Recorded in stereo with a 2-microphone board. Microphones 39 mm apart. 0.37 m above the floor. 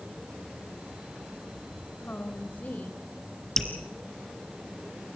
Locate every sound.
2.0 s a woman speaking: 45° left (ahead or behind), 2 m
3.6 s dripping: 10° left (ahead or behind), 2.5 m